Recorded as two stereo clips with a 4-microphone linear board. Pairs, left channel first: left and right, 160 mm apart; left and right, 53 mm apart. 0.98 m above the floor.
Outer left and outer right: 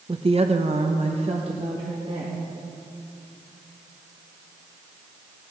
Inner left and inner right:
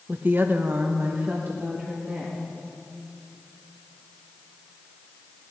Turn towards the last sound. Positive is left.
turn(degrees=-30)  # may be behind; listen again after turning